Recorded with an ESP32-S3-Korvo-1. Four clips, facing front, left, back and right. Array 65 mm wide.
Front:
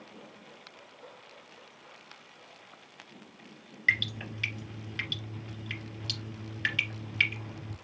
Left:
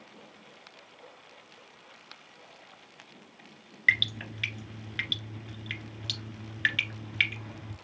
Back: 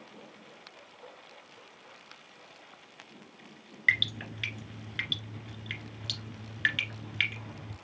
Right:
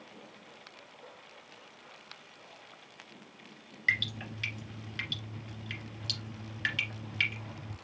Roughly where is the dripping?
Behind left.